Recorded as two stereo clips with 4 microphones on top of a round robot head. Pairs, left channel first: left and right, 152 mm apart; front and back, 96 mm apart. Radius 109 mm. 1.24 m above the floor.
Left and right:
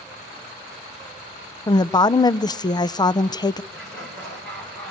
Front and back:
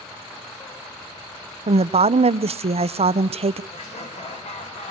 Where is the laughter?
5° left, 6.5 m.